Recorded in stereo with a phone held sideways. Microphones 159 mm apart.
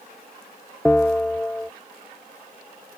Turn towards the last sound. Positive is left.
turn(degrees=10)  # may be behind; listen again after turning